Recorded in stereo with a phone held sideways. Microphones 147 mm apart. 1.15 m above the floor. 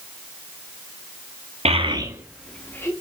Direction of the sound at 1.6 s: 45° right (ahead or behind).